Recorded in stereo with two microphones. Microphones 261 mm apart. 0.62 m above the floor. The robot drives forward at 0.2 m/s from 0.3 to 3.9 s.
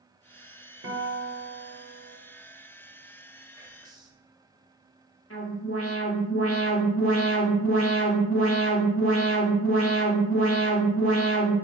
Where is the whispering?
15° right (ahead or behind), 0.6 m.